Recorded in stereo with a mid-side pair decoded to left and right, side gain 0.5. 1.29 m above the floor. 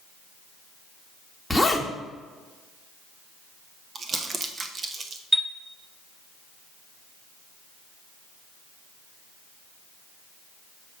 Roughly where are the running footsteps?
No running footsteps in this recording.